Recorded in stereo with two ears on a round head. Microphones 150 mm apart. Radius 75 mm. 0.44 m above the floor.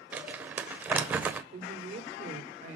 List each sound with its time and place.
0.1 s crumpling: 10° right (ahead or behind), 1.2 m
1.5 s a woman speaking: 50° right (ahead or behind), 1.6 m